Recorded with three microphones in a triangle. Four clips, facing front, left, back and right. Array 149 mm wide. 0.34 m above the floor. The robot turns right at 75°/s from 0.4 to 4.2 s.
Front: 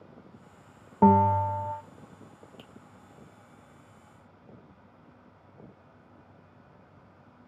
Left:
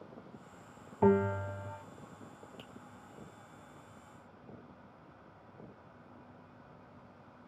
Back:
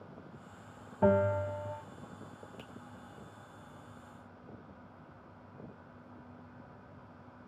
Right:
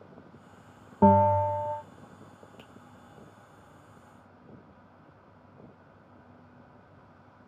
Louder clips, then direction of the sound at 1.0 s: Right 8 dB, front 7 dB; 45° right.